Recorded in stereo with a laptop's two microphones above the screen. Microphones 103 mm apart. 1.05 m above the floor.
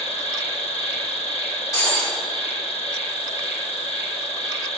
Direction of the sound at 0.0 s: 75° left (ahead or behind).